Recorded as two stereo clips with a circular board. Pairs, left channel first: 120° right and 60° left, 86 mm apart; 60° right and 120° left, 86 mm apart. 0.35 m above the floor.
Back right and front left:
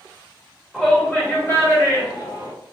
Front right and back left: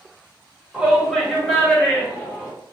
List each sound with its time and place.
0.7 s a shout: 150° left, 1.0 m; by 2.5 s 105° right, 1.6 m